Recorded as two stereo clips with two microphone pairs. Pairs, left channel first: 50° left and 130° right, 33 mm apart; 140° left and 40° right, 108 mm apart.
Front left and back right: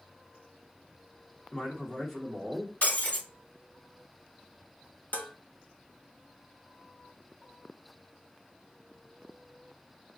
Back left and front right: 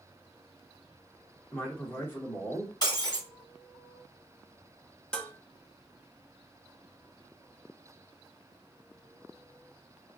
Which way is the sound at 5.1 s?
60° left.